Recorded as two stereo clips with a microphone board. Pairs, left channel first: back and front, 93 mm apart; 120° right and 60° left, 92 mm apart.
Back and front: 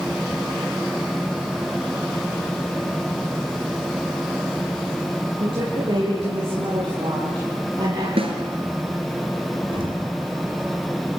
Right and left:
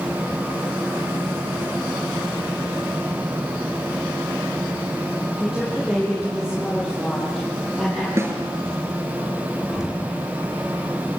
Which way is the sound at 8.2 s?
Straight ahead.